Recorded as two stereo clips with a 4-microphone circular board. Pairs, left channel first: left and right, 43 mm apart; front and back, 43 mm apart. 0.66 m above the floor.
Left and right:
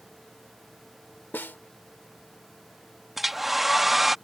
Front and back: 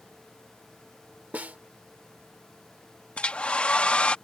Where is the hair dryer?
10° right.